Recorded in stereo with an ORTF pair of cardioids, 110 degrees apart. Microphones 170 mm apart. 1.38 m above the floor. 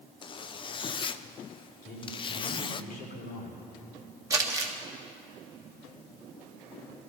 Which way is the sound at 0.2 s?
35° left.